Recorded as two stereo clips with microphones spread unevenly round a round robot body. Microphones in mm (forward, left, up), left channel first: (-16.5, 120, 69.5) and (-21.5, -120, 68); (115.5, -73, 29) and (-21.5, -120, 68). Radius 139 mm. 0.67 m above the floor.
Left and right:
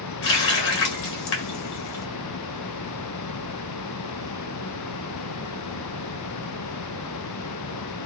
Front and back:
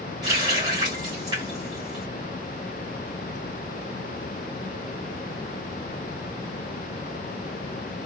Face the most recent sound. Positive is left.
turn(degrees=125)